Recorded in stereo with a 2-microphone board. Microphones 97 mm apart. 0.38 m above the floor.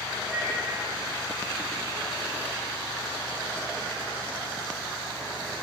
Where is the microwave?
Centre (ahead or behind), 2.5 m.